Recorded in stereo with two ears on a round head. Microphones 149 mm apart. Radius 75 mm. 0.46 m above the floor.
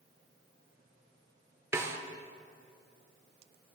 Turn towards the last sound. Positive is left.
turn(degrees=-15)  # may be behind; listen again after turning